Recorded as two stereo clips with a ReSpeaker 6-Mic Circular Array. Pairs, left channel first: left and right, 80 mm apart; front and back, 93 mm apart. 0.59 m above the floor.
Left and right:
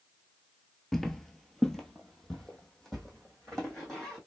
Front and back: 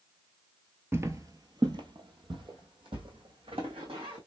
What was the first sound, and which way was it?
Footsteps, 175° left.